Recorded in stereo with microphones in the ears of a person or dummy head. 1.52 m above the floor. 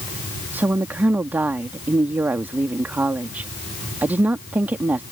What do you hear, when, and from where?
0.5 s a woman speaking: 10° right (ahead or behind)